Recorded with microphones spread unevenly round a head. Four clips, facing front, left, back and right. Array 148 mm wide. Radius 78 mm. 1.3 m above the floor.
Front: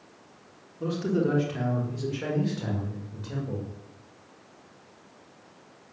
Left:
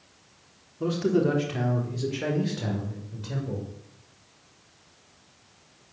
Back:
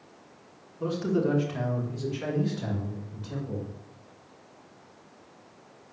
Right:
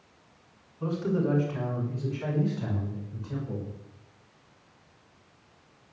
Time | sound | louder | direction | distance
0.8 | a man speaking | left 5 dB, even | 110° left | 4.5 m